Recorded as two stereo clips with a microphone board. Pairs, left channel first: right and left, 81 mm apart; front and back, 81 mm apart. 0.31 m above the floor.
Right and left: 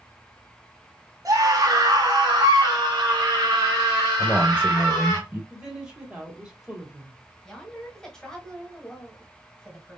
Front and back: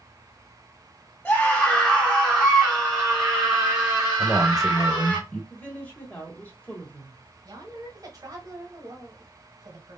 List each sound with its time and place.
1.2 s a scream: 65° left, 1.2 m; by 5.2 s 135° left, 3 m
4.2 s a man speaking: 80° left, 0.9 m
5.5 s a woman speaking: 30° left, 1.5 m
7.5 s a woman speaking: 170° right, 1.3 m